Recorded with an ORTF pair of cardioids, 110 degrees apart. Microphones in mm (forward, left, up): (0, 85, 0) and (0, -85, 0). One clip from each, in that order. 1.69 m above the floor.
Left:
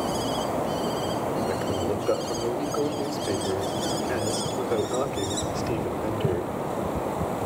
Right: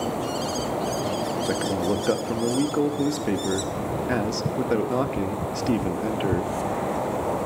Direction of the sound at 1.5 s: 45° right.